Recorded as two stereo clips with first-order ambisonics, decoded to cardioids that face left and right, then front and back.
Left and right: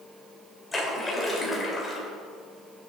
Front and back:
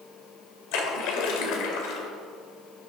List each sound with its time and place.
0.7 s a splash: 10° left, 2 m